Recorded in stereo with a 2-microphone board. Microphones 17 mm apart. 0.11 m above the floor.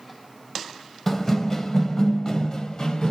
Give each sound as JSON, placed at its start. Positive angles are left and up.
{"t": 1.1, "sound": "running footsteps", "side_deg": 15, "distance_m": 1.1}